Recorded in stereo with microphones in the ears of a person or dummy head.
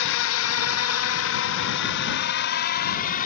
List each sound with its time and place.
0.0 s a drone: 65° left (ahead or behind); by 3.3 s 45° left (ahead or behind)